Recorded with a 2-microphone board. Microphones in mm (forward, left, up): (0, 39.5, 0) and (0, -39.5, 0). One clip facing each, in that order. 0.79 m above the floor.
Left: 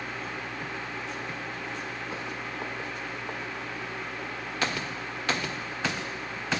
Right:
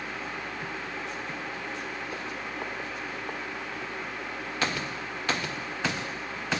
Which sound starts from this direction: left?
A whoosh, at 2.1 s.